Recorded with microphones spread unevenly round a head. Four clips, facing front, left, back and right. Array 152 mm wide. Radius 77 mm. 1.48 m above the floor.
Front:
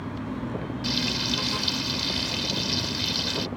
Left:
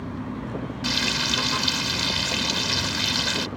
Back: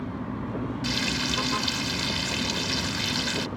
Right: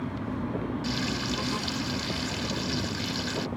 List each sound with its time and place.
0.8 s frying: 95° left